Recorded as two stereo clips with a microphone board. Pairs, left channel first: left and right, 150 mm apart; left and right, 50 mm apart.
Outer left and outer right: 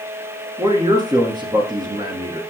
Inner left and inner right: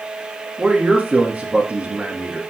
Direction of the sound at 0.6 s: 30° right (ahead or behind).